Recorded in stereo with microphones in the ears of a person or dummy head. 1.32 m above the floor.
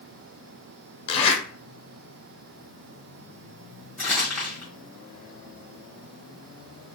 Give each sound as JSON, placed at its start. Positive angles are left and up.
{"t": 1.1, "sound": "a zipper", "side_deg": 35, "distance_m": 0.5}
{"t": 4.0, "sound": "crumpling", "side_deg": 5, "distance_m": 1.3}